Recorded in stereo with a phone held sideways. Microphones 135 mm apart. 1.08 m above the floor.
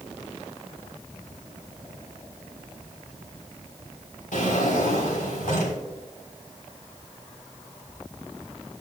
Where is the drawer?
80° left, 3.5 m.